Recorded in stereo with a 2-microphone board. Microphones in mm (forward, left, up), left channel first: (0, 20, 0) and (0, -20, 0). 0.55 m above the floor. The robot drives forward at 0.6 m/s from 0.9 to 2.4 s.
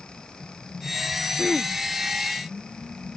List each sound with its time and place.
1.4 s throat clearing: 15° left (ahead or behind)